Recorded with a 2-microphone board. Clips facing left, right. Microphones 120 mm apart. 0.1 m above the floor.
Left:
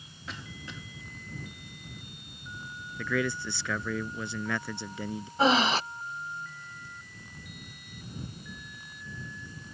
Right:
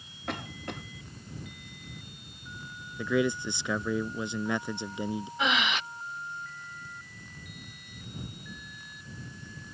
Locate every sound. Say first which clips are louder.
0.3 s a cough: right 7 dB; 60° right (ahead or behind)
3.0 s a man speaking: right 3 dB; 20° right (ahead or behind)
5.4 s breathing: left 7 dB; 35° left (ahead or behind)